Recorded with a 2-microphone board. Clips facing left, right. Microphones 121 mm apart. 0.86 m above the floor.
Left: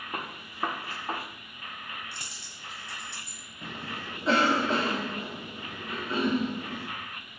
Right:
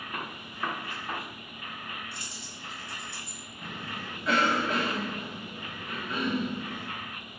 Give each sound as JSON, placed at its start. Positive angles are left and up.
{"t": 0.1, "sound": "a gunshot", "side_deg": 35, "distance_m": 1.3}
{"t": 2.1, "sound": "a dropped coin", "side_deg": 70, "distance_m": 2.0}
{"t": 3.6, "sound": "a cough", "side_deg": 30, "distance_m": 2.0}